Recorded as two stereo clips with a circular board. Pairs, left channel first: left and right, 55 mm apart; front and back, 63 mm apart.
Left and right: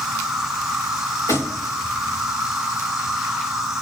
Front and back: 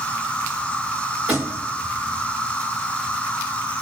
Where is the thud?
110° left, 4.5 m.